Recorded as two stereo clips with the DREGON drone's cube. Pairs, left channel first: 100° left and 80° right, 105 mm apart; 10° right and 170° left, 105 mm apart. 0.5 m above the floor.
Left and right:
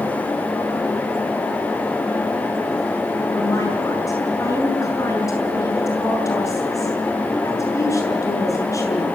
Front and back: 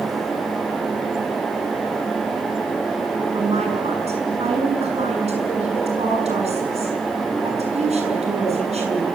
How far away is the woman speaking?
About 7 m.